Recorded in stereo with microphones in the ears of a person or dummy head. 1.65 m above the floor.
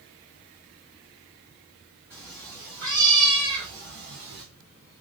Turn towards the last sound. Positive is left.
turn(degrees=-25)  # may be behind; listen again after turning